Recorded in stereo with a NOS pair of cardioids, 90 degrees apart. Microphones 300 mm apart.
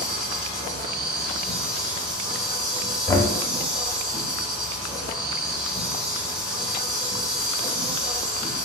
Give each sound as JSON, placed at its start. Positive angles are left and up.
{"t": 0.0, "sound": "an insect", "azimuth_deg": 0, "distance_m": 0.8}
{"t": 3.1, "sound": "knocking", "azimuth_deg": 10, "distance_m": 0.6}